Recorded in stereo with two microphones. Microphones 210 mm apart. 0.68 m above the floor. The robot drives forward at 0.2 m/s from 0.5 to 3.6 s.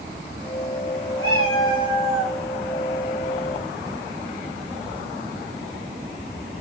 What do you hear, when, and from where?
1.2 s a cat meowing: 80° left, 4 m